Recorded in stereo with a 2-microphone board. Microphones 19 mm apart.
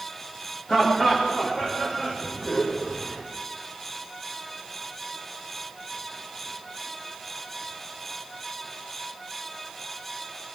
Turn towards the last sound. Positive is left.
turn(degrees=30)  # may be behind; listen again after turning